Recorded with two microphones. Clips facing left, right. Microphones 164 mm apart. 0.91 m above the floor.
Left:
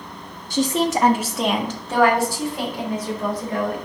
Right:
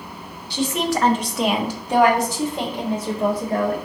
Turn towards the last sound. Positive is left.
turn(degrees=-35)  # may be behind; listen again after turning